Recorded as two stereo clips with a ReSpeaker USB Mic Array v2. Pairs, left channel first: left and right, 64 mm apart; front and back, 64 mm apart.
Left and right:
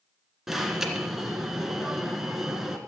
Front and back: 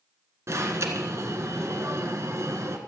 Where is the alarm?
175° right, 1.6 m.